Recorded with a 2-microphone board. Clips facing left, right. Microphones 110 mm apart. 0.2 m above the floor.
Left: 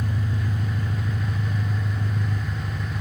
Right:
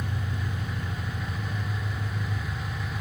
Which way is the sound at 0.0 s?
40° left (ahead or behind).